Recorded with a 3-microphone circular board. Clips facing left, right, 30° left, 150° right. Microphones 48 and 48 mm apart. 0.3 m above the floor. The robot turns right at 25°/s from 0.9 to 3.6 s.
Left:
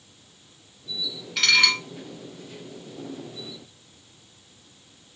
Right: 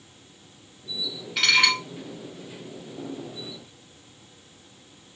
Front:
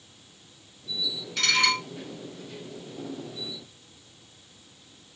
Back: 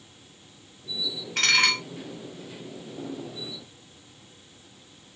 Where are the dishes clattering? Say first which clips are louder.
Even, back 2 dB; 175° right, 1.1 m; by 1.8 s 165° right, 1.1 m.